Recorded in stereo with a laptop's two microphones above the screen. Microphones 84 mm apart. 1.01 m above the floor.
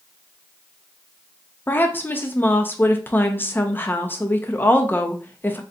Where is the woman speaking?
25° left (ahead or behind), 0.8 m.